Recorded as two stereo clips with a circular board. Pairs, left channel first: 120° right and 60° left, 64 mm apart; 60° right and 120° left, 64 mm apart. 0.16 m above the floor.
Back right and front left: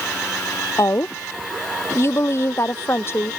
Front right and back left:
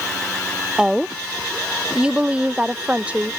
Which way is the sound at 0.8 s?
160° right.